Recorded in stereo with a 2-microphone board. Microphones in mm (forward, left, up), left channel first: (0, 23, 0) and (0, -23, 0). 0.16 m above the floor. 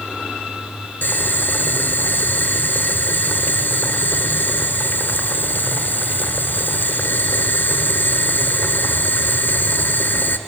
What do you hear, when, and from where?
1.0 s boiling: 50° left (ahead or behind), 1.4 m